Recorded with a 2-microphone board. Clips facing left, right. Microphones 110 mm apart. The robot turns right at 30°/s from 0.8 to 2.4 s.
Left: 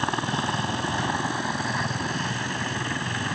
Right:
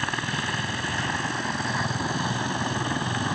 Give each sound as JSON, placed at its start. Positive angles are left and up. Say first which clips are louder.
{"t": 0.0, "sound": "a helicopter", "louder": "left 3 dB", "azimuth_deg": 150}